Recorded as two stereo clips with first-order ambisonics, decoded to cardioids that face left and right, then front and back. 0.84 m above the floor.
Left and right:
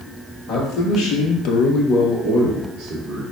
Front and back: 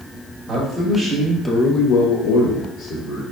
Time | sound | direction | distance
0.5 | a man speaking | 110° left | 1.9 m